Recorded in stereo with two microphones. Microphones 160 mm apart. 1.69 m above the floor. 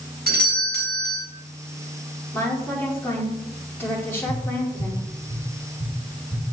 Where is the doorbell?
80° right, 2.5 m.